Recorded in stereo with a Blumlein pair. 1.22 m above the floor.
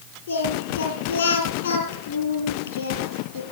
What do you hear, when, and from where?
0.3 s singing: 65° left, 4 m